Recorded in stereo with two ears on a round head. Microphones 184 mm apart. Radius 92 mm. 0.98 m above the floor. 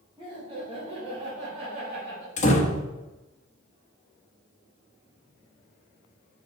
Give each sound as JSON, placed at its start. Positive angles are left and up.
{"t": 0.2, "sound": "laughter", "side_deg": -20, "distance_m": 3.0}
{"t": 2.4, "sound": "a door slam", "side_deg": 35, "distance_m": 1.1}